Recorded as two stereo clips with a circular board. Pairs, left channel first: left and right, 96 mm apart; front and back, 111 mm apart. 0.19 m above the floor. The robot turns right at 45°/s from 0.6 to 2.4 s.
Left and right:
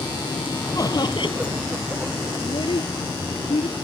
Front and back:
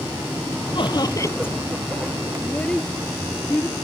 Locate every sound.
0.8 s laughter: 40° left; by 1.6 s 75° left
2.4 s a child speaking: 80° left